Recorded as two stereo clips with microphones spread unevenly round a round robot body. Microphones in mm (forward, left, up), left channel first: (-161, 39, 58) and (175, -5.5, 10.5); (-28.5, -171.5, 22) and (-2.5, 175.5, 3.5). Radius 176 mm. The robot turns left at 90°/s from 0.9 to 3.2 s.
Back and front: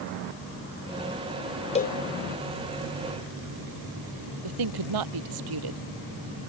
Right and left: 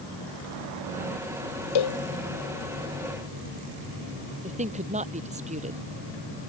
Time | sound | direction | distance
1.8 | a cowbell | 115° right | ?
4.4 | a woman speaking | 15° left | ?